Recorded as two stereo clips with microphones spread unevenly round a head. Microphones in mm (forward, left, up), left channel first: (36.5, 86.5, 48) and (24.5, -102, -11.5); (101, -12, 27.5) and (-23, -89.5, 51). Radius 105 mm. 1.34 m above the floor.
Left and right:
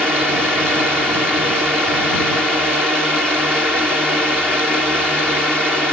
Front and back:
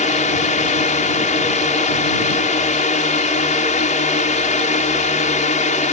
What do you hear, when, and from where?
0.0 s a drone: 5° right